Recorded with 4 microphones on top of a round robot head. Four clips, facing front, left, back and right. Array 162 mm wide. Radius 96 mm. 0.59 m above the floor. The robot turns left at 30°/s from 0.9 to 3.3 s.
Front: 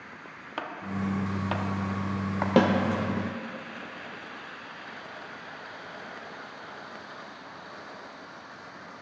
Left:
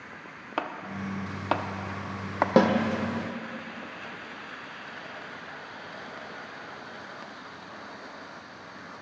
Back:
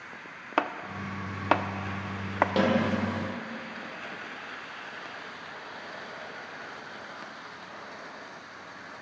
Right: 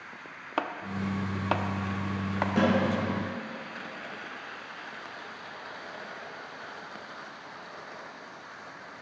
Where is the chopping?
175° right, 0.8 m; by 2.5 s 140° left, 0.8 m.